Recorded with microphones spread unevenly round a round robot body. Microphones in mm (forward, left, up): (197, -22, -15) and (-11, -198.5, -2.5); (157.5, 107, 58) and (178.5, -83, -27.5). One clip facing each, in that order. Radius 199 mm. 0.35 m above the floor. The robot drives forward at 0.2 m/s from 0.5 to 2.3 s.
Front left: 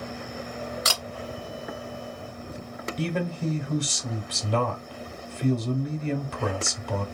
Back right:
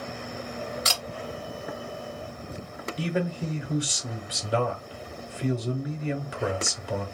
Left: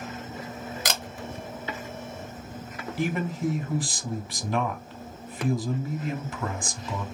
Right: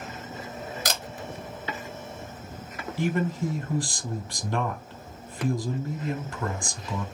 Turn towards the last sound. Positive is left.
turn(degrees=-65)